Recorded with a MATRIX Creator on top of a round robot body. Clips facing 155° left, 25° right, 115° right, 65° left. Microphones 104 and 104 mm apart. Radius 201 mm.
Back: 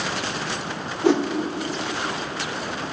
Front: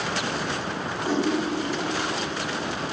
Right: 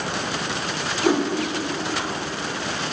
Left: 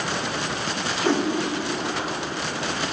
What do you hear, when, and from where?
1.0 s a whoosh: 170° left, 1.5 m